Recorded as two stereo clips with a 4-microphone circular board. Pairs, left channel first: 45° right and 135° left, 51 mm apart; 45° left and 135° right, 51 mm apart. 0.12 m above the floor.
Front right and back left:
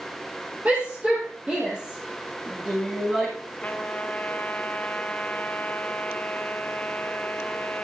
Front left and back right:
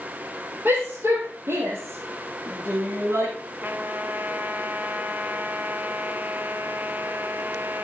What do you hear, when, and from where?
0.7 s a shout: 170° right, 4 m; by 3.3 s 150° right, 5.5 m
3.6 s a trumpet: 100° right, 1.1 m